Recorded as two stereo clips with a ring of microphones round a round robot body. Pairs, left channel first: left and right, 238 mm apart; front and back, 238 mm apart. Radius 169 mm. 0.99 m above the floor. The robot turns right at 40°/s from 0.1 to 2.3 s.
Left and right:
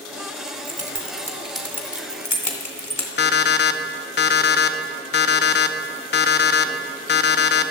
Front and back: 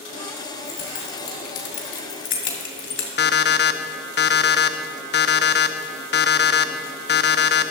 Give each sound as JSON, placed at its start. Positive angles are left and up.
{"t": 0.5, "sound": "keys jangling", "azimuth_deg": -45, "distance_m": 2.0}
{"t": 3.2, "sound": "an alarm clock", "azimuth_deg": 45, "distance_m": 0.7}